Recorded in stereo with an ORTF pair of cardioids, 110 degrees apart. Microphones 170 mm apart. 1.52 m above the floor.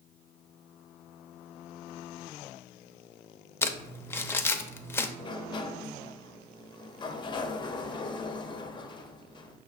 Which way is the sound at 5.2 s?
25° left.